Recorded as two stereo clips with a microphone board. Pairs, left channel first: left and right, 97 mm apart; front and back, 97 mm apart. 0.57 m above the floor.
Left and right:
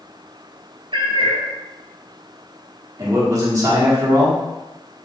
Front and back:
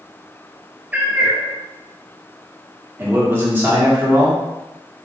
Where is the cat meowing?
110° right, 1.1 m.